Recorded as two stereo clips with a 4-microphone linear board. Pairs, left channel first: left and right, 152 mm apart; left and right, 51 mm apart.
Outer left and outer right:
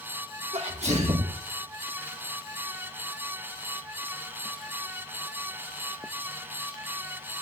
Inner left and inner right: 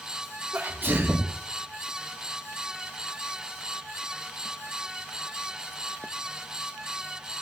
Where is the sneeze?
45° right (ahead or behind), 1.0 m.